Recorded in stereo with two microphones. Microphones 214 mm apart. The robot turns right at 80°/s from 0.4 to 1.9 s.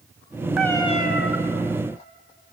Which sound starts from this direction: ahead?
A cat meowing, at 0.6 s.